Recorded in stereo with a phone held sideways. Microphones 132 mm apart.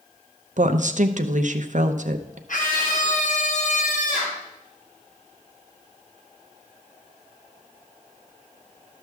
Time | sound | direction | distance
0.6 | a woman speaking | 60° right (ahead or behind) | 0.7 m
2.5 | a scream | 70° left (ahead or behind) | 1.4 m